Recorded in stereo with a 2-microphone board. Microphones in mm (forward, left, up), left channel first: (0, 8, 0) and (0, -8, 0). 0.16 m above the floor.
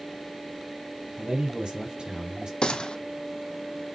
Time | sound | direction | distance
1.2 | a man speaking | 60° right (ahead or behind) | 5 m
2.6 | a gunshot | 60° left (ahead or behind) | 0.9 m